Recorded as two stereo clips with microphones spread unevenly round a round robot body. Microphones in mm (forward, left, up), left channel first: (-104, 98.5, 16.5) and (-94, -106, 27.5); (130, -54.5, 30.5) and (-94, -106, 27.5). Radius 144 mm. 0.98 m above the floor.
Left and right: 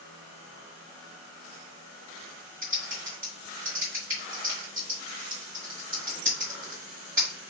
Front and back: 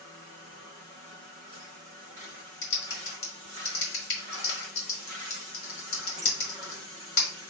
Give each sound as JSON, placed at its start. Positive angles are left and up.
{"t": 2.6, "sound": "typing on a keyboard", "azimuth_deg": -5, "distance_m": 1.7}